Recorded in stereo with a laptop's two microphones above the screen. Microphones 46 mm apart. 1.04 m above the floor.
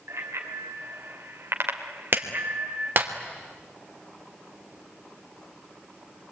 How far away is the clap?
About 3 m.